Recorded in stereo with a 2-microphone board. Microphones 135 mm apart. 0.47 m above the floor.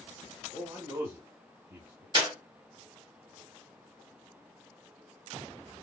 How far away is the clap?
About 1.2 m.